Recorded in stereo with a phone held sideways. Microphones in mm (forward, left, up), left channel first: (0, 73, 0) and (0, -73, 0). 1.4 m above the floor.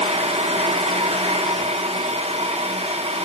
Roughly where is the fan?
Right.